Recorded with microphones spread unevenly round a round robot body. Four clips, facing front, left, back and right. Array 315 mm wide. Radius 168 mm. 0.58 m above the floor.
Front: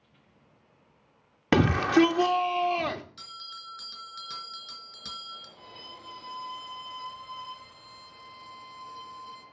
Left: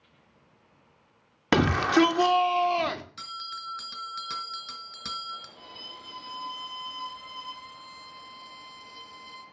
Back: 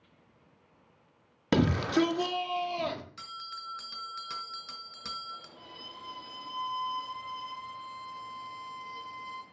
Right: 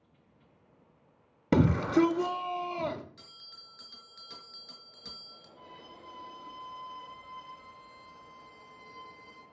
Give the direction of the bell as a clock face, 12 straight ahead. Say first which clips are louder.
Left 18 dB, back 3 dB; 9 o'clock.